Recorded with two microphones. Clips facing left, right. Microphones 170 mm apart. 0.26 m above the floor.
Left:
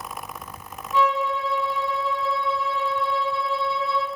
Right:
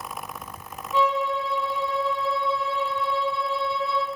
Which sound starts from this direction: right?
A violin, at 0.9 s.